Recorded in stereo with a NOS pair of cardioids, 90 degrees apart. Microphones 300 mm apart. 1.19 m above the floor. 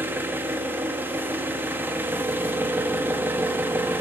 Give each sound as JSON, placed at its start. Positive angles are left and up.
{"t": 0.0, "sound": "an engine running", "azimuth_deg": -5, "distance_m": 1.5}